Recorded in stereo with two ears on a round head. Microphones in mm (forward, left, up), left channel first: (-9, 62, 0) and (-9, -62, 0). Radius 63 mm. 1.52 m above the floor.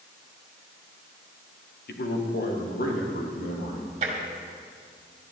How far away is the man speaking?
About 1.3 m.